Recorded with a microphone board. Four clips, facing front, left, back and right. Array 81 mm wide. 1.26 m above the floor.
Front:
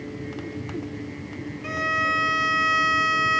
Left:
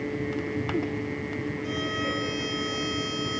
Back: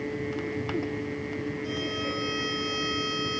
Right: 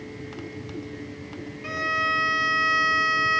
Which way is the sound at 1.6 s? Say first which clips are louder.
Right 7 dB, front 6 dB; 30° right.